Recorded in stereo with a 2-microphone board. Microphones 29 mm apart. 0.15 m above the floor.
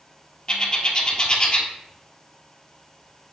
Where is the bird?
35° left (ahead or behind), 1.1 m.